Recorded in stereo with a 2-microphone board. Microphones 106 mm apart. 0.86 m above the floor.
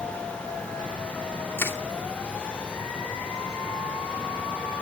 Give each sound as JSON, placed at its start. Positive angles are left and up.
{"t": 1.6, "sound": "crushing", "side_deg": 20, "distance_m": 2.5}